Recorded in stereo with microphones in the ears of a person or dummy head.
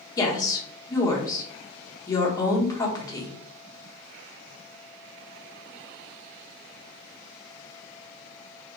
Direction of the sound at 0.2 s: 20° left (ahead or behind).